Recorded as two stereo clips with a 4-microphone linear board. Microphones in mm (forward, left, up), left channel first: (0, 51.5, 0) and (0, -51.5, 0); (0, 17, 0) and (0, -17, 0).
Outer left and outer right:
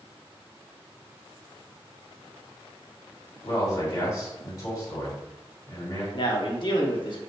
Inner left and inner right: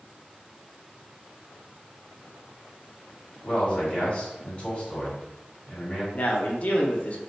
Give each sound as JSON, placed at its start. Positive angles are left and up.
{"t": 3.4, "sound": "a man speaking", "side_deg": 40, "distance_m": 1.9}
{"t": 6.1, "sound": "a man speaking", "side_deg": 50, "distance_m": 0.8}